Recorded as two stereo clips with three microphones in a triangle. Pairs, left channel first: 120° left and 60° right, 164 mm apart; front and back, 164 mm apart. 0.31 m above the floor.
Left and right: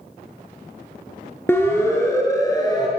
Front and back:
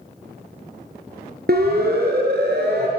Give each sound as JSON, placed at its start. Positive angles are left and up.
{"t": 1.5, "sound": "a siren", "azimuth_deg": -165, "distance_m": 5.0}